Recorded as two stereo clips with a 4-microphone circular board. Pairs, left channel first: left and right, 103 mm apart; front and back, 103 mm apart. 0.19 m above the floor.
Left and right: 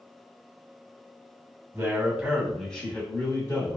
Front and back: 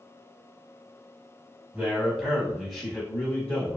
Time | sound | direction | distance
1.7 | a man speaking | 120° right | 1.1 m